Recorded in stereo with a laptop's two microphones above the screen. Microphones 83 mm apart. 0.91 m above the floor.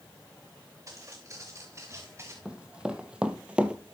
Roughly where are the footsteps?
Right.